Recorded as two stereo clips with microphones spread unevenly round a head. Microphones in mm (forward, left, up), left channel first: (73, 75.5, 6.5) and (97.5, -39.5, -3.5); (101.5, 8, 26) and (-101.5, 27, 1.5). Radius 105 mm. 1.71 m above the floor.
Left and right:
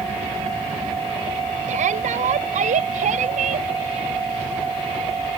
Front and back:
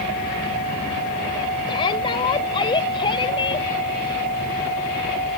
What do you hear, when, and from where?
1.7 s a shout: 75° right